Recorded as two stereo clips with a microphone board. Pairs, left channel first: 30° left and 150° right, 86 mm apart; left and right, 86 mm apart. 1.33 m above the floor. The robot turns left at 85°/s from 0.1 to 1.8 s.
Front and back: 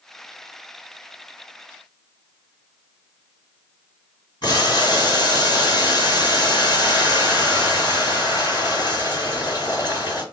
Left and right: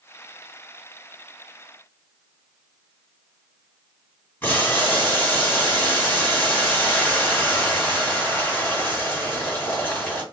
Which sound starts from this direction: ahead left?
Boiling, at 4.4 s.